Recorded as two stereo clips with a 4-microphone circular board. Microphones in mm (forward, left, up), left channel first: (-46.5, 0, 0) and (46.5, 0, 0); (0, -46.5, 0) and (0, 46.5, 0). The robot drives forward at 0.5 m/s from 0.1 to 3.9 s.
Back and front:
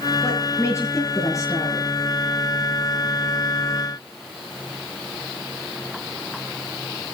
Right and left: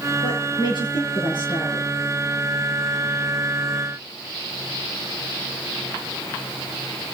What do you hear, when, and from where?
0.2 s a woman speaking: 120° right, 7.5 m; by 1.9 s 125° right, 8 m